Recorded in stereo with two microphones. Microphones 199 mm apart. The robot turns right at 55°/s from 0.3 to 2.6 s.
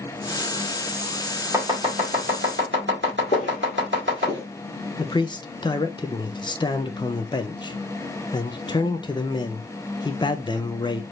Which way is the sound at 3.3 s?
45° left (ahead or behind).